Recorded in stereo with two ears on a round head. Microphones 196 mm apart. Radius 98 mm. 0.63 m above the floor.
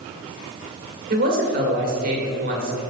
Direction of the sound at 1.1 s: 40° right (ahead or behind).